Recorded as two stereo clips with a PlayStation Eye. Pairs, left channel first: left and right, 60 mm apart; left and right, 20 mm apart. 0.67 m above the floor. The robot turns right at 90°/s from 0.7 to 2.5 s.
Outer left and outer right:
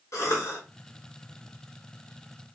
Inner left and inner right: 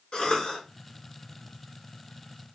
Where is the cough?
60° left (ahead or behind), 2 m.